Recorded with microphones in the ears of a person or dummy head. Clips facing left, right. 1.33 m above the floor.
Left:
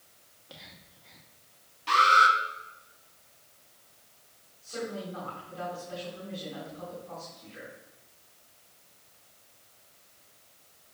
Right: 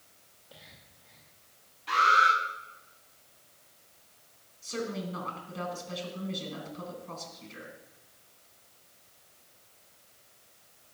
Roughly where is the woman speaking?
Right.